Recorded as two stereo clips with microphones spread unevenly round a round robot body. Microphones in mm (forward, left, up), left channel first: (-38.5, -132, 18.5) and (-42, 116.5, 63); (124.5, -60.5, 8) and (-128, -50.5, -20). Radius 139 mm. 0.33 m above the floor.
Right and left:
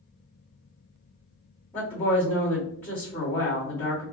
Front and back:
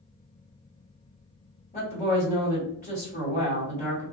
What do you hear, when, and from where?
1.7 s a woman speaking: 35° right, 1.5 m